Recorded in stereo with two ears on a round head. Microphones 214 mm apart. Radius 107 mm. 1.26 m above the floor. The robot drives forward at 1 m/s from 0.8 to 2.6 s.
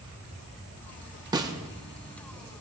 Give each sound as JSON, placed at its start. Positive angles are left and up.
{"t": 1.3, "sound": "a snare drum", "side_deg": -15, "distance_m": 0.7}